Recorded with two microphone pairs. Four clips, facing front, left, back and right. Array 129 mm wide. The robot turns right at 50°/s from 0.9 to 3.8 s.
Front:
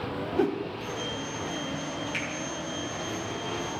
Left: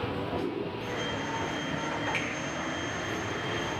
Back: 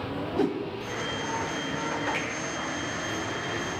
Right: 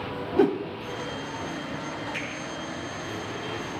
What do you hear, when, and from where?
0.4 s a whoosh: 100° right, 0.9 m
2.1 s a finger snap: 135° left, 6 m; by 2.3 s 145° left, 6 m